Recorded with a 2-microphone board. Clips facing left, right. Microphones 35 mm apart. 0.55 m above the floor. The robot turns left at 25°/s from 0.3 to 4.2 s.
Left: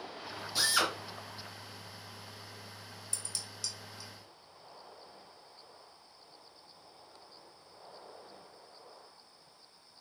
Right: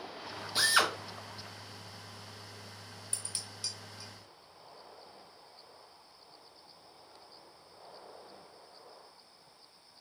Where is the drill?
30° right (ahead or behind), 1.5 m; by 0.9 s 40° right (ahead or behind), 1.5 m.